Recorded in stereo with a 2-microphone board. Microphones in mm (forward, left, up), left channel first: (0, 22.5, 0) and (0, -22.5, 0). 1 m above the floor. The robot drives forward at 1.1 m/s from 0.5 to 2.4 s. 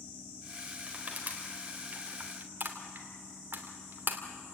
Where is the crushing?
30° right (ahead or behind), 4 m; by 4.2 s 50° right (ahead or behind), 3 m.